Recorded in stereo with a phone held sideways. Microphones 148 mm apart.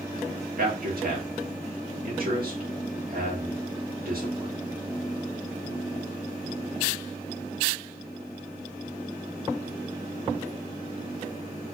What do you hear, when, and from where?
0.6 s a man speaking: 70° right (ahead or behind), 1.8 m